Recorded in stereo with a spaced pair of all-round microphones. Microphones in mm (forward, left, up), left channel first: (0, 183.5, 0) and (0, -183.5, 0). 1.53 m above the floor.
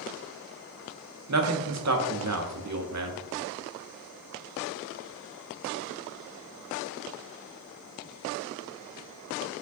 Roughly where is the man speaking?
Right.